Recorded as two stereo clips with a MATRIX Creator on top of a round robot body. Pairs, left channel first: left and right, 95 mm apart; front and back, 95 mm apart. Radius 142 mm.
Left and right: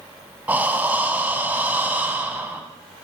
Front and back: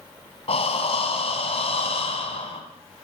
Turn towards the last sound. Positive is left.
turn(degrees=-15)